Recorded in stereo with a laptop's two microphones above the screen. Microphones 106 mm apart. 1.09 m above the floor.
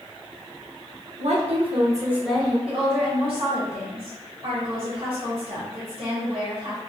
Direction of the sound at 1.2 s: 80° right.